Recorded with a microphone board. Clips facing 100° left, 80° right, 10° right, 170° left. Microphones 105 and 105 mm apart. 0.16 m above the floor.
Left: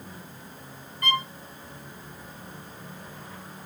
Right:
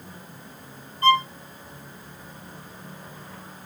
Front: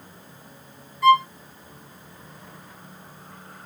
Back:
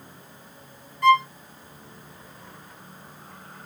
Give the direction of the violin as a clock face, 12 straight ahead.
3 o'clock.